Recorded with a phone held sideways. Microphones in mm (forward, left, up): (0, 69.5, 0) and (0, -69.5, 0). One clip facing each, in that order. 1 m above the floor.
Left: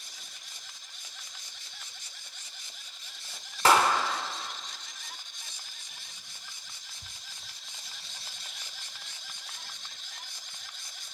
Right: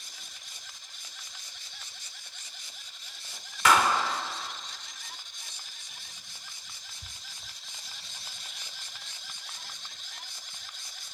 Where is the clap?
35° left (ahead or behind), 2.5 m.